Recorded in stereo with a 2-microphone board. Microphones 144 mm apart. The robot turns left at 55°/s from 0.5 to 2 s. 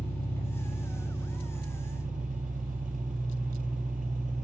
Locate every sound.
0.0 s an engine running: 15° left, 4 m; by 4.4 s 65° right, 4 m